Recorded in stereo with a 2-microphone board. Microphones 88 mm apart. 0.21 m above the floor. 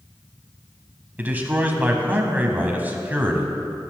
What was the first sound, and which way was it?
A man speaking, 20° right (ahead or behind).